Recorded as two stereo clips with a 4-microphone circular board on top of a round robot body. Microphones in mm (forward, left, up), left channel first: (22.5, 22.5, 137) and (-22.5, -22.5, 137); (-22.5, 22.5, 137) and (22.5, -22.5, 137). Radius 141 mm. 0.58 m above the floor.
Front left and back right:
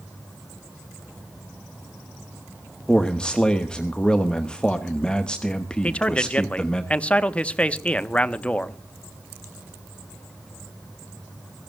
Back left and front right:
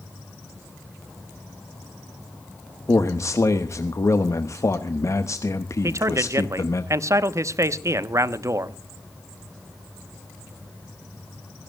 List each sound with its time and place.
2.9 s a man speaking: 120° left, 1.3 m
5.8 s a man speaking: 20° right, 1.0 m